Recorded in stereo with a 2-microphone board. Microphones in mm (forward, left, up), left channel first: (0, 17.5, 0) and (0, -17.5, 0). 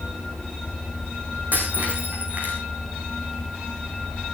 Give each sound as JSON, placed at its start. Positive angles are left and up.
{"t": 1.5, "sound": "breaking glass", "side_deg": -50, "distance_m": 6.0}